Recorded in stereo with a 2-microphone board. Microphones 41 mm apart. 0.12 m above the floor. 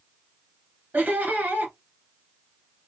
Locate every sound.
0.9 s laughter: 45° right (ahead or behind), 1.8 m